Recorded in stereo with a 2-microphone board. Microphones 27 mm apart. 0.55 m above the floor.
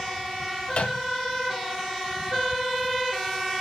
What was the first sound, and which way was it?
A microwave, 50° left (ahead or behind).